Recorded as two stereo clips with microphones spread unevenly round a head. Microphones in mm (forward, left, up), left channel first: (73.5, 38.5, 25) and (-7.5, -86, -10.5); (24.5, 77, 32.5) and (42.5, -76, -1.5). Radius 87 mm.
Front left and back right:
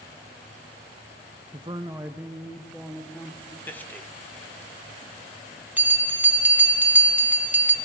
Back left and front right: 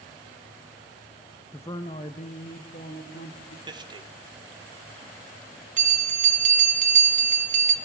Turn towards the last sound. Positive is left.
turn(degrees=-40)